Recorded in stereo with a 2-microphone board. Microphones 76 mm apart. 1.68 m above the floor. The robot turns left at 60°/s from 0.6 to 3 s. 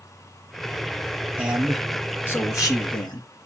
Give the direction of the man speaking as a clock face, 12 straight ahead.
5 o'clock.